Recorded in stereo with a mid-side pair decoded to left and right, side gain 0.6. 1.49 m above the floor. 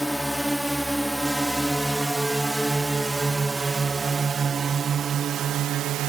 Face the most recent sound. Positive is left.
turn(degrees=-75)